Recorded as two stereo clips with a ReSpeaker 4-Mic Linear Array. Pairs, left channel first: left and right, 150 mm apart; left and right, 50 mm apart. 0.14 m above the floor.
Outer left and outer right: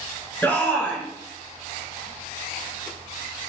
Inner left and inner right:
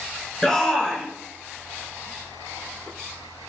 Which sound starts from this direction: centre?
A shout, at 0.4 s.